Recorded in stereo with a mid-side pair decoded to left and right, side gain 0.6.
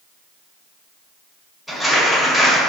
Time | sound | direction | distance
1.7 | crumpling | 15° left | 1.6 m